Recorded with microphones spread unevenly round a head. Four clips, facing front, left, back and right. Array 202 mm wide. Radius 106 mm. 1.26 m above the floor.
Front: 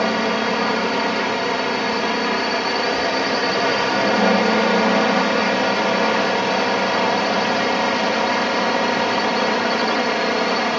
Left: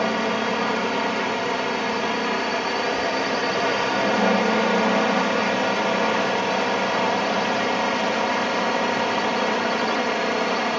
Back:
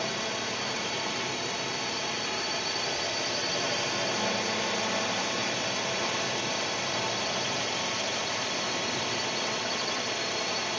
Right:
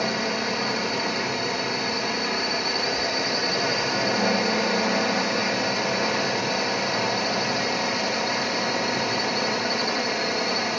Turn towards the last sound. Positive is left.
turn(degrees=20)